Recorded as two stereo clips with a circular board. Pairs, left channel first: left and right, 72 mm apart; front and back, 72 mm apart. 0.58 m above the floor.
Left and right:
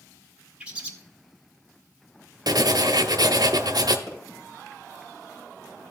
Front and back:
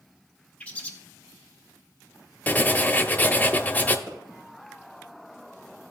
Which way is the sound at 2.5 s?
70° right.